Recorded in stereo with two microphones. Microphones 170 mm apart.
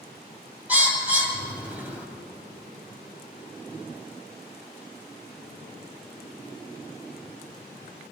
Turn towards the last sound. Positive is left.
turn(degrees=-10)  # may be behind; listen again after turning